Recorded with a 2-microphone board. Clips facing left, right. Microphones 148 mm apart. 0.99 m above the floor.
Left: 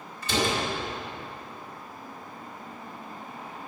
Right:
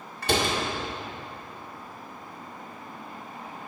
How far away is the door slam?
About 1.9 m.